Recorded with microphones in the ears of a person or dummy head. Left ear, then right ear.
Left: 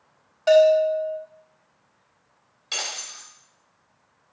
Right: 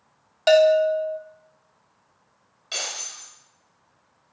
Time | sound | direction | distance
0.5 | a bell | 40° right (ahead or behind) | 1.1 m
2.7 | breaking glass | 10° left (ahead or behind) | 3.5 m